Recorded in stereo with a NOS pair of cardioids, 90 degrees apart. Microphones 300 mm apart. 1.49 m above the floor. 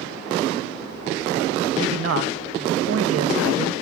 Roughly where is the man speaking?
Ahead right.